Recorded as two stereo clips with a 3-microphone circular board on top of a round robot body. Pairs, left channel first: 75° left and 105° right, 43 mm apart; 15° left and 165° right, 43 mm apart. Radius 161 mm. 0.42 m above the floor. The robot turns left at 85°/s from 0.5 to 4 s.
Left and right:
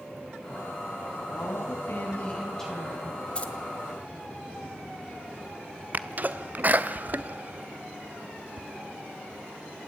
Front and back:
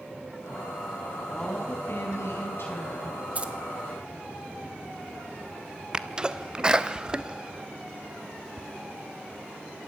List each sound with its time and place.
1.3 s a woman speaking: 105° left, 4.5 m; by 3.2 s 60° right, 4.5 m
3.4 s keys jangling: 140° left, 1.5 m; by 3.5 s 125° left, 1.5 m
5.9 s a sneeze: 105° right, 1.2 m